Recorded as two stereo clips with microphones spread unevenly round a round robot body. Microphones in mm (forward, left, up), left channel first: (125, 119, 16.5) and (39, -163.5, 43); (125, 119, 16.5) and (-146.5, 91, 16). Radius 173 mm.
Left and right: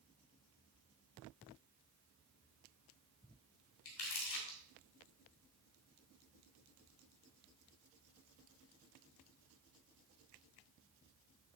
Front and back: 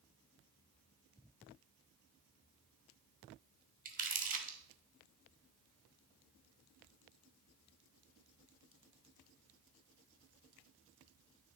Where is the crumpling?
125° left, 1.4 m.